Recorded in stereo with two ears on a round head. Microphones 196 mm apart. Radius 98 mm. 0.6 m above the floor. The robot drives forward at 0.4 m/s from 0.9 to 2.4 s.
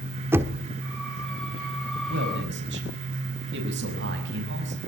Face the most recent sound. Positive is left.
turn(degrees=-55)  # may be behind; listen again after turning